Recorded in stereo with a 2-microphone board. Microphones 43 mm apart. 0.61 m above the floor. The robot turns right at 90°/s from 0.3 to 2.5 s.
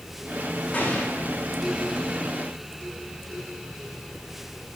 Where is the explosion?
140° left, 8 m; by 1.3 s 165° right, 8 m.